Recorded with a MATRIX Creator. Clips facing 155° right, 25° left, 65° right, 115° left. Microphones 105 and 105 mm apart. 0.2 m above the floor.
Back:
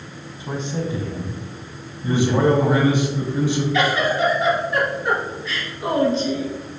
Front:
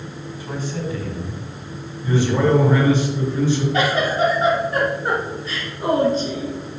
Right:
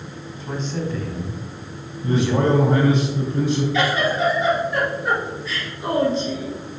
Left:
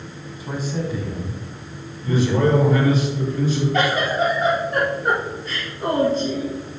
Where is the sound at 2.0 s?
85° right, 2.5 m.